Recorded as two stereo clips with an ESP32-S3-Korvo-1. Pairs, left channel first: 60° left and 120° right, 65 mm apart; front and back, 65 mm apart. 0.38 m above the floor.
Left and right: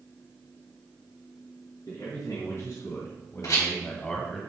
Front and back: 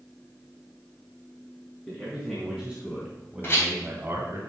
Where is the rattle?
45° left, 3 m.